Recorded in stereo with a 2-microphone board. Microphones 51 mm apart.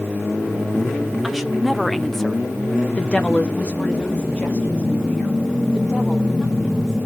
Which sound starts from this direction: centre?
A woman speaking, at 1.2 s.